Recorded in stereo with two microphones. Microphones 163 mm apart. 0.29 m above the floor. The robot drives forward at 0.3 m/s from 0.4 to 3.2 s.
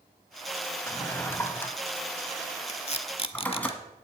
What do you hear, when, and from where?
0.9 s a drawer: 15° left (ahead or behind), 0.9 m; by 3.7 s 10° left (ahead or behind), 1.5 m
2.7 s tape being pulled: 40° left (ahead or behind), 0.8 m